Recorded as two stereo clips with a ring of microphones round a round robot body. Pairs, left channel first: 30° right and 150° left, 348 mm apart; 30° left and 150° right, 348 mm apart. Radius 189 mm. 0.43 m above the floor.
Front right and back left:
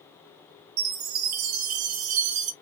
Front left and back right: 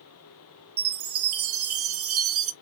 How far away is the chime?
About 0.6 m.